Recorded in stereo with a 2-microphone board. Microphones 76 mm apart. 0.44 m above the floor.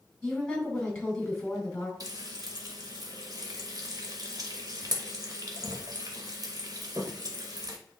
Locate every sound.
0.2 s a woman speaking: 10° left (ahead or behind), 4 m
2.0 s frying: 55° right (ahead or behind), 1.5 m